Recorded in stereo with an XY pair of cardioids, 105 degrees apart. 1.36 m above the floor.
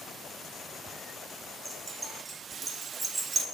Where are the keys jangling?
25° right, 1.9 m; by 3.4 s 50° right, 0.7 m.